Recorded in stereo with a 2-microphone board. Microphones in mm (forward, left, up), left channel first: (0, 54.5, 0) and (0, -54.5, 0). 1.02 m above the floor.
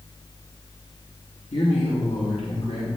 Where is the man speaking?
85° left, 1.7 m; by 2.9 s 80° left, 2.5 m.